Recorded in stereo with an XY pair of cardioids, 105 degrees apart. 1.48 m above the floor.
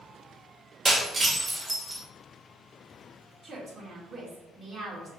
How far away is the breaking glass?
About 1.7 m.